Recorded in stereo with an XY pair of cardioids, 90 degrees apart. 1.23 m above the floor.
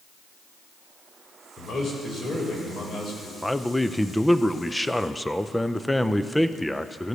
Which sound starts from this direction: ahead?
A man speaking, at 3.4 s.